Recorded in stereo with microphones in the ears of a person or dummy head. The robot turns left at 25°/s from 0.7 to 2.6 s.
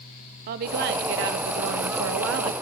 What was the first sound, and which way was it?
A woman speaking, 55° right.